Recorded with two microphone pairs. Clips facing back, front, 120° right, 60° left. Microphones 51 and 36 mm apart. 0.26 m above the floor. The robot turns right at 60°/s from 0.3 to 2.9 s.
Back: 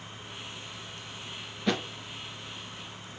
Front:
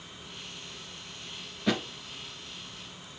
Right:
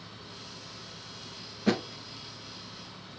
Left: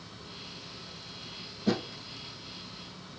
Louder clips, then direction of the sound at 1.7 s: Even, right 2 dB; 90° right.